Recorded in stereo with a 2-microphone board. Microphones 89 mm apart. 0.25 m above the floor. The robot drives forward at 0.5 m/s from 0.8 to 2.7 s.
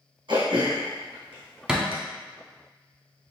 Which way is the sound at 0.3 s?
60° right (ahead or behind).